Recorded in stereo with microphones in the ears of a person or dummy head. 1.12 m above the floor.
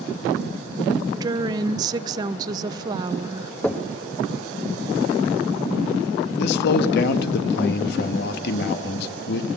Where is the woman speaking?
20° right (ahead or behind), 0.7 m.